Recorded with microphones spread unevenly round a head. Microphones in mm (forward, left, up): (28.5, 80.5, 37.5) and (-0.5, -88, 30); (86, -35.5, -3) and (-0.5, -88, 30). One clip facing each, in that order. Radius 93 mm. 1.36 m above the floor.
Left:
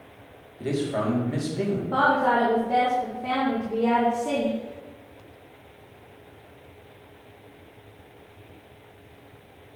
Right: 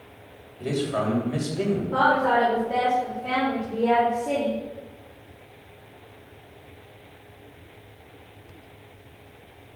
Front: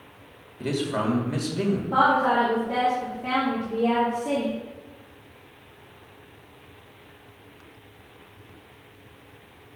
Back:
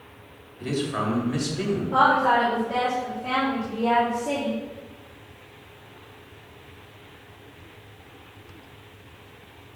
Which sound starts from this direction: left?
A woman speaking, at 1.9 s.